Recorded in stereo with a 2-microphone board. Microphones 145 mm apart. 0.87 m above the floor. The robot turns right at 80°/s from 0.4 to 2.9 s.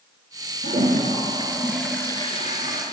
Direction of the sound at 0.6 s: 95° right.